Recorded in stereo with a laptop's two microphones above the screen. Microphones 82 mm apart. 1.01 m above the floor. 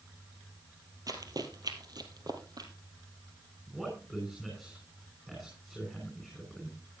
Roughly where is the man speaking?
Centre.